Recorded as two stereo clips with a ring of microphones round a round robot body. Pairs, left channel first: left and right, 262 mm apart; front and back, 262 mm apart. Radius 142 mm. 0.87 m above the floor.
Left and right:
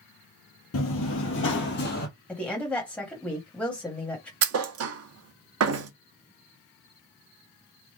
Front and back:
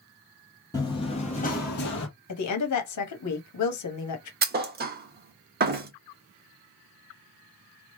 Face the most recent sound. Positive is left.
turn(degrees=-125)